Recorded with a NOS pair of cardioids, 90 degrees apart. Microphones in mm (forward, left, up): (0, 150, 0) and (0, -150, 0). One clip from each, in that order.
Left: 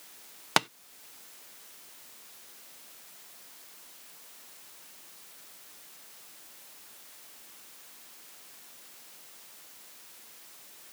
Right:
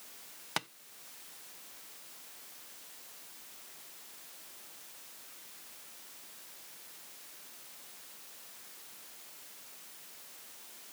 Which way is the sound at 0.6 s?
35° left.